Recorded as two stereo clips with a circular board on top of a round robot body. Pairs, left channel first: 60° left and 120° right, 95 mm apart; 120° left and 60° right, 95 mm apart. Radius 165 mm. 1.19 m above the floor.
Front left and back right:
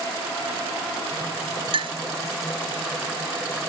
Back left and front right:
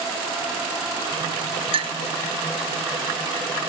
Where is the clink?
85° right.